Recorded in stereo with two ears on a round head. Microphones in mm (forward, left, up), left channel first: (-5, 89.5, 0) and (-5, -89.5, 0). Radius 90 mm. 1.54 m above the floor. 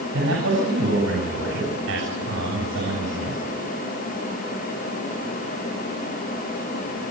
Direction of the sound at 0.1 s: 70° right (ahead or behind).